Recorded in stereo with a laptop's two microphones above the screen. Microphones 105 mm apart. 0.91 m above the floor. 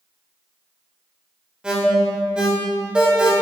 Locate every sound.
1.6 s an alarm: 10° right (ahead or behind), 2 m